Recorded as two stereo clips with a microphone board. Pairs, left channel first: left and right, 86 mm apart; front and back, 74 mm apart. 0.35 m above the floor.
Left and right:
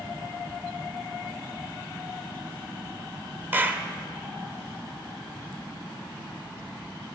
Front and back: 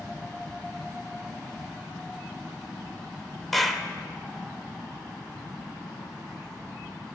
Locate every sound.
3.5 s a clap: 80° right, 0.6 m